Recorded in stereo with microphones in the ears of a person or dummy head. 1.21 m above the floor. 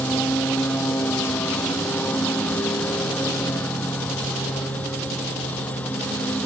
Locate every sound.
0.0 s a lawn mower: 10° left (ahead or behind)